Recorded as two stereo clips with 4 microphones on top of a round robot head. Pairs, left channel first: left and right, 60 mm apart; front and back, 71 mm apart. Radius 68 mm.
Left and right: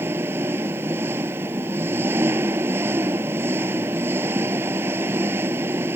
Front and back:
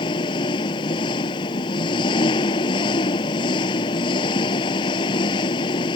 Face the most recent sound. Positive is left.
turn(degrees=-25)